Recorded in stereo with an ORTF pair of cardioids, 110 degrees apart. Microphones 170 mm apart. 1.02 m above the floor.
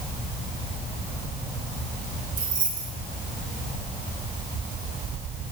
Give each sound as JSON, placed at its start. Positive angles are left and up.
{"t": 2.4, "sound": "keys jangling", "azimuth_deg": -25, "distance_m": 3.0}